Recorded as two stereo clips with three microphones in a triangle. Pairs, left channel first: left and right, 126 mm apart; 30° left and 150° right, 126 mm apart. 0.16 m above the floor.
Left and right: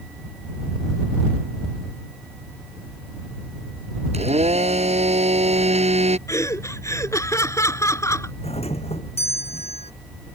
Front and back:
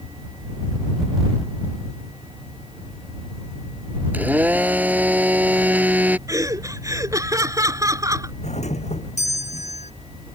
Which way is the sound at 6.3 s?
150° left.